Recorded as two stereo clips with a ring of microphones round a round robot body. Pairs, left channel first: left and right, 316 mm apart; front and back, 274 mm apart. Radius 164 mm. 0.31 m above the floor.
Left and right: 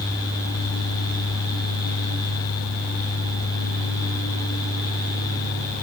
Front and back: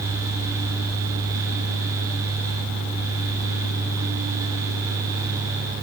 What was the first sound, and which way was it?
Only background noise.